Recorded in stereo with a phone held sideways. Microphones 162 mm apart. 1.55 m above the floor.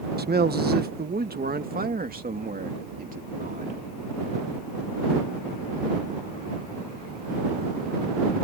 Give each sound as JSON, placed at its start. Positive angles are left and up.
{"t": 0.2, "sound": "a man speaking", "side_deg": -75}